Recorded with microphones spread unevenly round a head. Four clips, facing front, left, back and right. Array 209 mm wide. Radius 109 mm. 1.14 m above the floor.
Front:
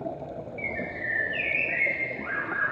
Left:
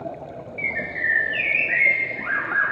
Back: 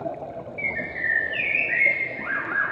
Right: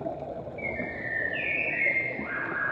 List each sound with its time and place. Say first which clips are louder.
0.6 s a bird: left 9 dB, back 3 dB; 115° left, 0.5 m